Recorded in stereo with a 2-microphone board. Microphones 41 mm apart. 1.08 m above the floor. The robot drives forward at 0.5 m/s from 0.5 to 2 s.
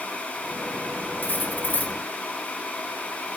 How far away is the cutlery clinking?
About 1.1 m.